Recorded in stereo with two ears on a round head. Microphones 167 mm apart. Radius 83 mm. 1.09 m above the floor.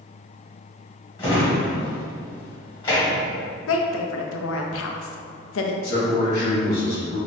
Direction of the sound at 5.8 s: 55° left (ahead or behind).